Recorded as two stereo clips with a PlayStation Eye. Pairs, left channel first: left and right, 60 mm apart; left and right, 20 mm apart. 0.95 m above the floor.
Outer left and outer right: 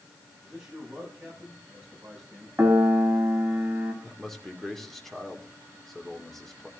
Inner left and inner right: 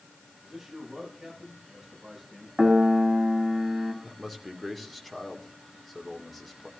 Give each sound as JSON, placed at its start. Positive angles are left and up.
{"t": 0.4, "sound": "a man speaking", "side_deg": -10, "distance_m": 8.0}
{"t": 2.6, "sound": "a piano", "side_deg": -25, "distance_m": 2.5}
{"t": 4.0, "sound": "a man speaking", "side_deg": 5, "distance_m": 2.5}